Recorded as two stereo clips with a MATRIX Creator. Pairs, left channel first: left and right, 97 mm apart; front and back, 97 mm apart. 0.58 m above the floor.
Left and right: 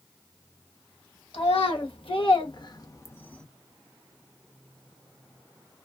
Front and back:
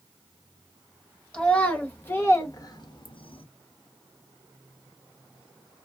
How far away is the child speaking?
About 1.4 m.